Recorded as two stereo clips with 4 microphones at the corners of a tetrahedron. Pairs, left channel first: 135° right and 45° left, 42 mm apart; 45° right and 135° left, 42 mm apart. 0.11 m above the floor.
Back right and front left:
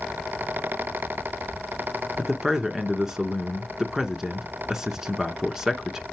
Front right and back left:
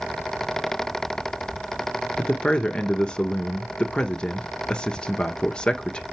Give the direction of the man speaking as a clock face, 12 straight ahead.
1 o'clock.